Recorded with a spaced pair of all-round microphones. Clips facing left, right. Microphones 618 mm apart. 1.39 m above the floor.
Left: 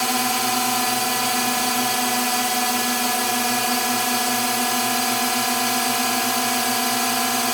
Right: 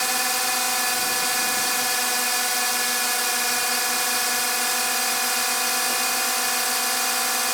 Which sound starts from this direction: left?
A drone, at 0.0 s.